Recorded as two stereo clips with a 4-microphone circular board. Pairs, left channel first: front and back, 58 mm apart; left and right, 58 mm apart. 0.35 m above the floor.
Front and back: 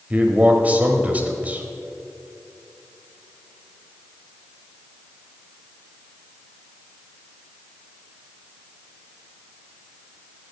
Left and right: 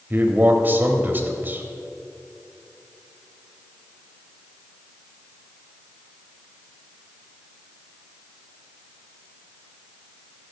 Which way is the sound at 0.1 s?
125° right.